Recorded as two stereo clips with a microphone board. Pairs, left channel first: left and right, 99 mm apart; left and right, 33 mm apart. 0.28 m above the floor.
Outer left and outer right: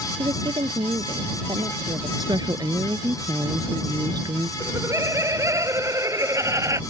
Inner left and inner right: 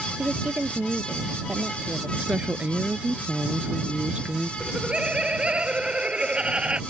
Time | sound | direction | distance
0.2 | a woman speaking | 50° right (ahead or behind) | ?
2.2 | a woman speaking | 40° right (ahead or behind) | ?
4.6 | laughter | 30° right (ahead or behind) | ?